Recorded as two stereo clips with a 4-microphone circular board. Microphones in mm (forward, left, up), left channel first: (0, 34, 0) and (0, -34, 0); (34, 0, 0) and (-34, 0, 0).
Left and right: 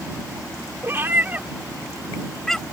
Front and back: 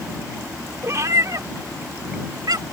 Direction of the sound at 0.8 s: 140° right.